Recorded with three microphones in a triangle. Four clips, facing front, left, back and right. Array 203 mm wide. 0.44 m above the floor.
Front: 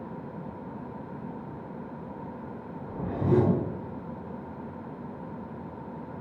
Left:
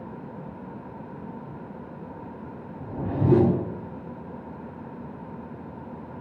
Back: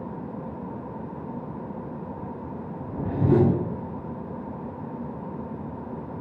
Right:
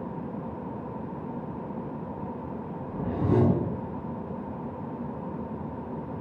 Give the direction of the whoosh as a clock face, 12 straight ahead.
8 o'clock.